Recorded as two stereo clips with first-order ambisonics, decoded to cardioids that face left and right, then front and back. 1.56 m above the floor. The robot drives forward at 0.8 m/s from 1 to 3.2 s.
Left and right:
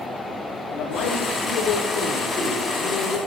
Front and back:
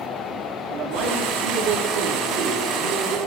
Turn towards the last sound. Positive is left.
turn(degrees=155)